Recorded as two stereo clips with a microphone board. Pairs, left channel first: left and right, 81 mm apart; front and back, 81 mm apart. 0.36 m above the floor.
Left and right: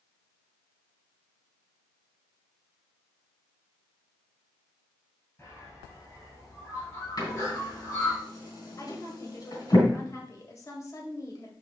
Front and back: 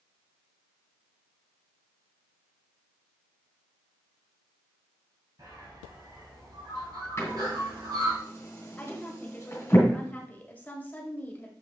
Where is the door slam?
55° left, 3 m.